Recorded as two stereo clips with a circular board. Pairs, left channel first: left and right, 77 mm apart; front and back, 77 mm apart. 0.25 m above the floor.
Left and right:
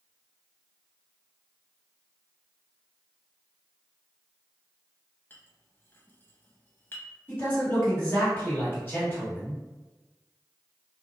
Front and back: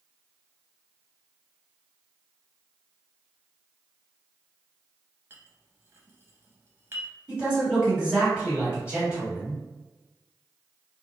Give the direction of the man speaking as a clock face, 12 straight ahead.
8 o'clock.